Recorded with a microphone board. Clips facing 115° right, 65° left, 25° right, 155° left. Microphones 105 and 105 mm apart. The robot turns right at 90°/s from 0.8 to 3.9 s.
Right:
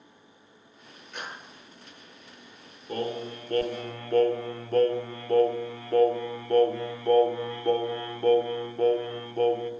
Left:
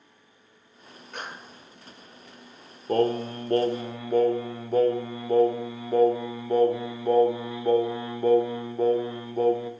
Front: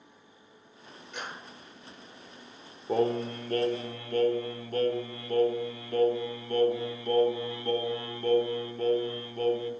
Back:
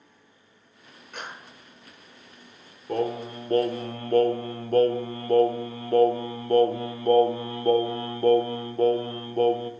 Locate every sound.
1.1 s a clap: 115° left, 3.5 m; by 1.5 s 145° left, 3.5 m
2.9 s singing: 55° left, 0.7 m; by 9.7 s 145° left, 0.7 m